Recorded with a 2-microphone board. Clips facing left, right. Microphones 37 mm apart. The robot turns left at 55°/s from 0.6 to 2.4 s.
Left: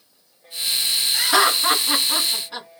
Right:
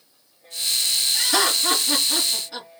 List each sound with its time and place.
1.1 s laughter: 50° left (ahead or behind), 1.8 m; by 2.7 s 20° left (ahead or behind), 1.8 m